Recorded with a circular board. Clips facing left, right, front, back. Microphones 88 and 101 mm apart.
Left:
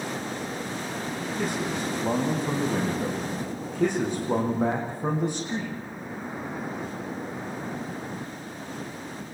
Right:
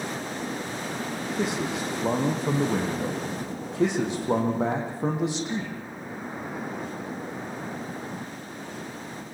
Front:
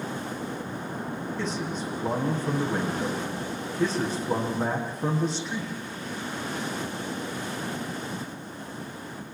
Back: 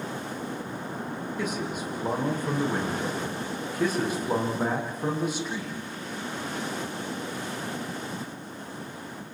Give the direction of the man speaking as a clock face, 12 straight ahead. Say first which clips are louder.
Right 1 dB, back 1 dB; 3 o'clock.